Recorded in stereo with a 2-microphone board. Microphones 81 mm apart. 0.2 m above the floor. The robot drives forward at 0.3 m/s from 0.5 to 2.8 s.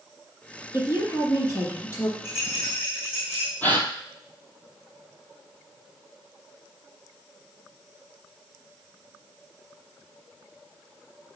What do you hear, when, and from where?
0.7 s a woman speaking: 35° left (ahead or behind), 2.5 m; by 2.1 s 30° left (ahead or behind), 3 m
2.2 s a rattle: 30° left (ahead or behind), 3 m
3.6 s a gasp: 20° left (ahead or behind), 1.1 m